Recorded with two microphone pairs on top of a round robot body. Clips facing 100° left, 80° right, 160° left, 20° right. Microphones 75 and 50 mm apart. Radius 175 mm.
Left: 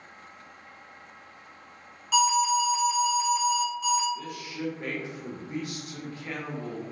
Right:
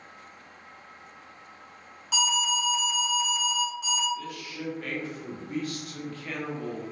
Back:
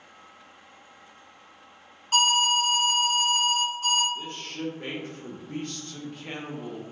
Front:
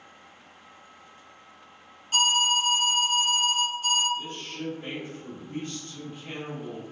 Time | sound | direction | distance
2.1 | an alarm | 175° right | 1.8 m
4.2 | a man speaking | 155° left | 0.9 m